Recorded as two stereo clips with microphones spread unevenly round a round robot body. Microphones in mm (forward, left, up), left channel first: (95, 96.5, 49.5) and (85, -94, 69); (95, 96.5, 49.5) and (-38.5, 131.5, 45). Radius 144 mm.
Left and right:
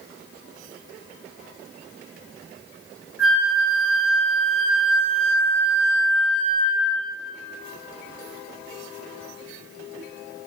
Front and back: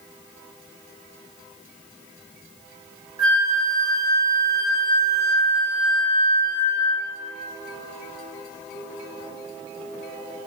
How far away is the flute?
About 2.0 m.